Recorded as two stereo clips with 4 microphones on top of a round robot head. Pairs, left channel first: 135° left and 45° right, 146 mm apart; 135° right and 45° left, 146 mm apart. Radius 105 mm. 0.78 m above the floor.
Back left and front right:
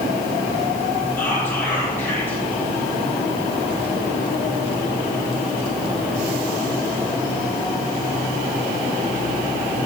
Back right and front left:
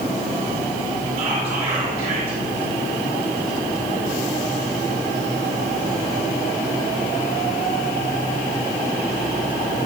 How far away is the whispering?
About 5 m.